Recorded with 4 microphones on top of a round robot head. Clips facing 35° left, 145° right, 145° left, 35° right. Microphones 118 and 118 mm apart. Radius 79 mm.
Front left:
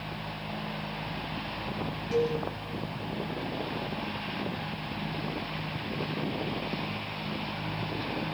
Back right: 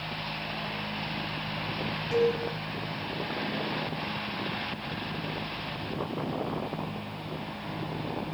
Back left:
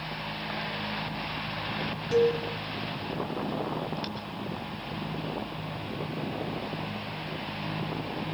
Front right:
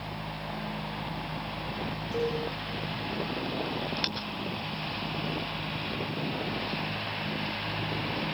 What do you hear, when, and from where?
2.1 s a cowbell: 140° left, 9 m